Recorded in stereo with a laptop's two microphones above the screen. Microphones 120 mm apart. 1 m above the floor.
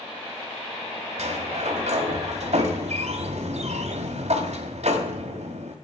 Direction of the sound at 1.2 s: 65° right (ahead or behind).